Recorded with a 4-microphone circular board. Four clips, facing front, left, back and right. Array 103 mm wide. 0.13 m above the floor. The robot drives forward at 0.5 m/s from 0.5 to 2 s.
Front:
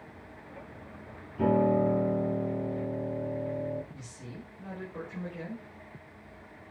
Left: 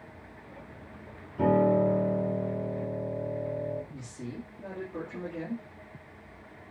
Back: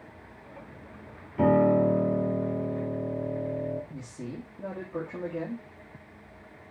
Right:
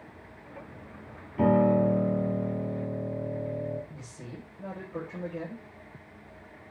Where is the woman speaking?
175° right, 4 m.